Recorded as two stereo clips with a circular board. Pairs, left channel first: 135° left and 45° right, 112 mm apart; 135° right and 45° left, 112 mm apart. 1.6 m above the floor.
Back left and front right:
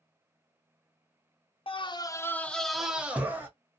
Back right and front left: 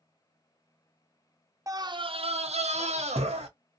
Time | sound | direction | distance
1.7 | a scream | 105° left | 0.6 m